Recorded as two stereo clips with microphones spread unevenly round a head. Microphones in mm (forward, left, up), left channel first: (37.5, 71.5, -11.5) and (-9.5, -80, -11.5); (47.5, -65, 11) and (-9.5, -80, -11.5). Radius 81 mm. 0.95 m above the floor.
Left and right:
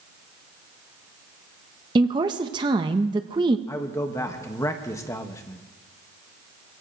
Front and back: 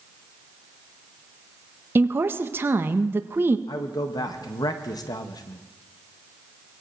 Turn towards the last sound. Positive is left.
turn(degrees=5)